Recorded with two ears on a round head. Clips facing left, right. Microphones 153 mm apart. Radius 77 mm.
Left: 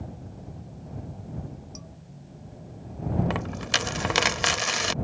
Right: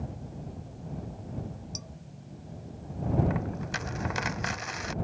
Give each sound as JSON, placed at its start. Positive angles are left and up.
{"t": 1.8, "sound": "dishes clattering", "side_deg": -45}
{"t": 3.3, "sound": "a dropped coin", "side_deg": 85}